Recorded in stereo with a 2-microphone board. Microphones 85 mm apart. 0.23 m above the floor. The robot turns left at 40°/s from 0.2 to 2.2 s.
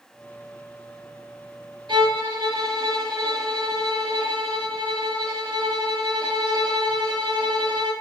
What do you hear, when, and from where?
1.9 s a violin: 65° right (ahead or behind), 0.9 m; by 7.9 s 55° right (ahead or behind), 0.9 m